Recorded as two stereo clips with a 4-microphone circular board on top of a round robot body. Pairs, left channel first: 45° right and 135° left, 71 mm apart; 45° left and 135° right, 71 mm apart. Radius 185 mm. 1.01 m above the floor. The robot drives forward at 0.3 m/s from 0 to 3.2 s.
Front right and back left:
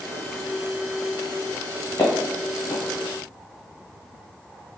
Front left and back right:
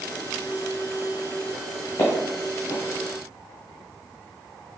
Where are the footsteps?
10° left, 1.1 m; by 2.8 s 20° left, 1.0 m.